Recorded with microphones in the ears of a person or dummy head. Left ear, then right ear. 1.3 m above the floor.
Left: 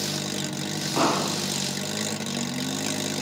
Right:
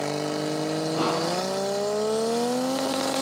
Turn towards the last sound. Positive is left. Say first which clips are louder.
# left 4 dB
turn(degrees=65)  # may be behind; listen again after turning